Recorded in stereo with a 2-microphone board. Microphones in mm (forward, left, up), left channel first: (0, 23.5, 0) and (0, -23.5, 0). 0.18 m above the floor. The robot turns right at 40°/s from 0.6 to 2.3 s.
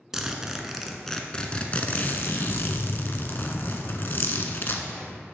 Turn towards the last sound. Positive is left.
turn(degrees=55)